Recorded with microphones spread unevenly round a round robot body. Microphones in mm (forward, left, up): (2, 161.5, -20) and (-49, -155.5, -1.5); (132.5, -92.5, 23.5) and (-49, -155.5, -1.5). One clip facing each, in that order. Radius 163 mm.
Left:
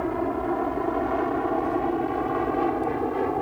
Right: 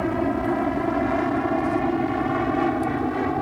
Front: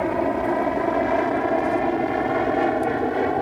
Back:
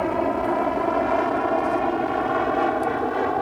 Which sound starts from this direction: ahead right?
An aircraft, at 0.0 s.